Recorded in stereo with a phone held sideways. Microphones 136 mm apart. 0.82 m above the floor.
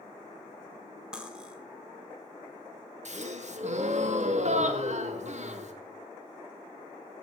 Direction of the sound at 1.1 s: 5° right (ahead or behind).